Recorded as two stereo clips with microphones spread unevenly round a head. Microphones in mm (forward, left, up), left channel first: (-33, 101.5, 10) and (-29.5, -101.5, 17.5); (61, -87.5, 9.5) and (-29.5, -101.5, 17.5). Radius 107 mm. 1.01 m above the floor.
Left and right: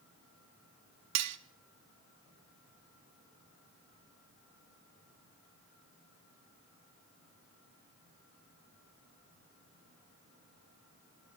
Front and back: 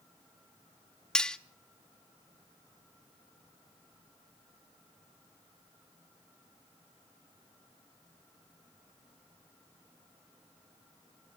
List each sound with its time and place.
1.1 s cutlery clinking: 75° right, 1.0 m